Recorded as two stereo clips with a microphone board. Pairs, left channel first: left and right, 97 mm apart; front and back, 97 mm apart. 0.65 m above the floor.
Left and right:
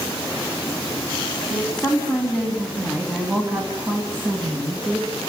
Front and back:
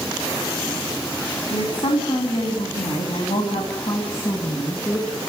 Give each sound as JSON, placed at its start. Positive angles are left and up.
{"t": 1.5, "sound": "a woman speaking", "azimuth_deg": 10, "distance_m": 4.5}